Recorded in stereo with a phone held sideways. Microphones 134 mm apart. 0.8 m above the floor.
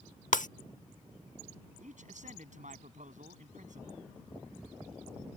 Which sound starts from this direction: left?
Breaking glass, at 0.3 s.